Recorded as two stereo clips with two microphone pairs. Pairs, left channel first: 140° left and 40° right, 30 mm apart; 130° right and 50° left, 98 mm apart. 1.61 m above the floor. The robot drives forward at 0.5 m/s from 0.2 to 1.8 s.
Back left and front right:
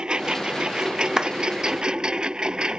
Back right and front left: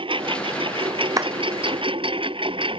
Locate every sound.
0.0 s a lawn mower: 20° left
1.2 s a clap: 15° left